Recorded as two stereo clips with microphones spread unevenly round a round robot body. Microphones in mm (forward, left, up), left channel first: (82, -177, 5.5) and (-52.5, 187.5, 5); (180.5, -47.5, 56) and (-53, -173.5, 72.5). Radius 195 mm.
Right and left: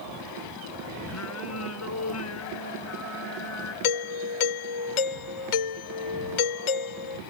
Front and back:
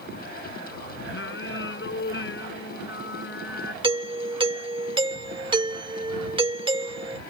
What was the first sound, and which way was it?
Singing, 15° right.